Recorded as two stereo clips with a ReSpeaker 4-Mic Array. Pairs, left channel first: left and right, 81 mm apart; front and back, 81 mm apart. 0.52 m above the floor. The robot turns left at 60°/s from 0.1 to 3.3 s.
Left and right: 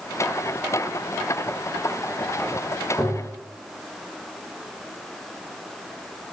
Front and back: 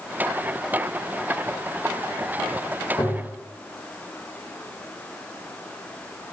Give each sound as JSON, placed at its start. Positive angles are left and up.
{"t": 3.0, "sound": "tapping", "azimuth_deg": 15, "distance_m": 1.4}